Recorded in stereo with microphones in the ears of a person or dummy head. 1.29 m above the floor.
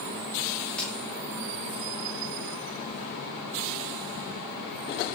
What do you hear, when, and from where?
0.7 s a crack: 5° left (ahead or behind), 5.5 m